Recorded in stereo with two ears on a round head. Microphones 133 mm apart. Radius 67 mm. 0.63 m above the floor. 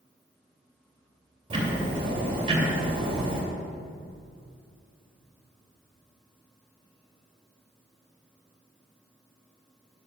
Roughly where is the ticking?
Right.